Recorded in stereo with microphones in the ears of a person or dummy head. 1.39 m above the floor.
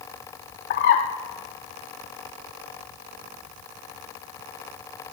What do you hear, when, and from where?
0.7 s a bird: 50° left (ahead or behind), 0.6 m